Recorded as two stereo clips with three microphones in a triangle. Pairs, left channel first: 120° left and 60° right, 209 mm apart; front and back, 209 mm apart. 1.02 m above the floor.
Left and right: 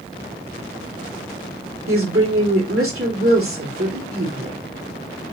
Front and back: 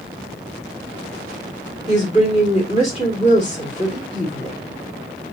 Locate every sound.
1.9 s a woman speaking: 55° right, 2.5 m